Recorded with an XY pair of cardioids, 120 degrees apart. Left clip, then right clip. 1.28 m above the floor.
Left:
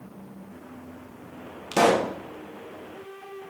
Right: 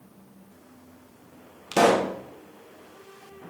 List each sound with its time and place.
1.7 s a pop: 5° right, 1.2 m